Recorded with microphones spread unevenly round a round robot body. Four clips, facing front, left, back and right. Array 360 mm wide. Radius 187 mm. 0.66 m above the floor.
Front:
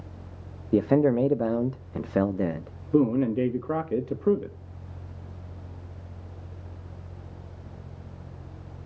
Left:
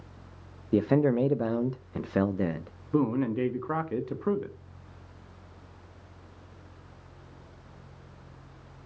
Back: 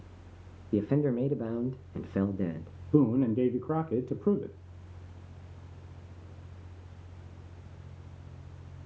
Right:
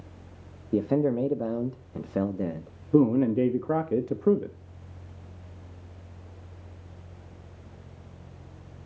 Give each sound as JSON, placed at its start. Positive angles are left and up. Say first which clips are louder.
{"t": 0.7, "sound": "a man speaking", "louder": "left 1 dB, front 7 dB", "azimuth_deg": -5, "distance_m": 0.9}
{"t": 2.9, "sound": "a man speaking", "louder": "right 5 dB, front 2 dB", "azimuth_deg": -85, "distance_m": 1.0}